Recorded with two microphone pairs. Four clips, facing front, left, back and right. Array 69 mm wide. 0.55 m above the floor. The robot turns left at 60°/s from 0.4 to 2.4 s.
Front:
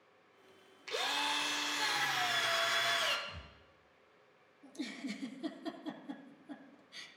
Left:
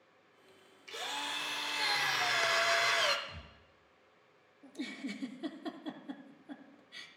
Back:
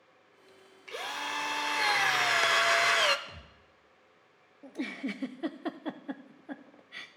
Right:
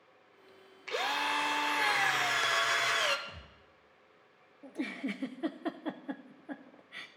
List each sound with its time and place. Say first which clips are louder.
0.9 s a drill: right 8 dB, even; 85° right, 0.6 m; by 3.2 s straight behind, 0.6 m
3.3 s a thud: right 1 dB, even; 165° right, 3 m
4.6 s a giggle: right 5 dB, back 6 dB; 155° right, 0.5 m